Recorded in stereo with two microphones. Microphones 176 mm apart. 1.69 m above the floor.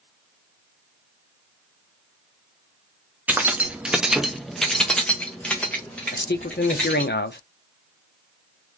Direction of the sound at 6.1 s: 75° left (ahead or behind).